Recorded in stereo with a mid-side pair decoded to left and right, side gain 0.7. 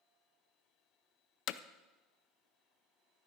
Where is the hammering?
60° left, 0.5 m.